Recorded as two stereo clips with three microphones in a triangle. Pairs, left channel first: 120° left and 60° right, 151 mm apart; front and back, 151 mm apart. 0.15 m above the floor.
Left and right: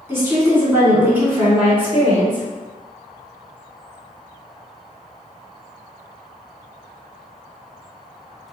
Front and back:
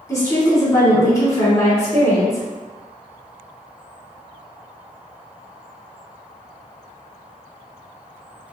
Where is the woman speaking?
10° right, 1.4 m.